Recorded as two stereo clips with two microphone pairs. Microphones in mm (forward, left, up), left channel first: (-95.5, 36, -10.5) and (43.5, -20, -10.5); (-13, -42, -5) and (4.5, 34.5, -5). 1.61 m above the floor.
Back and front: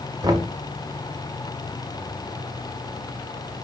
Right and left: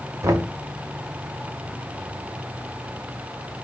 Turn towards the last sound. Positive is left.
turn(degrees=40)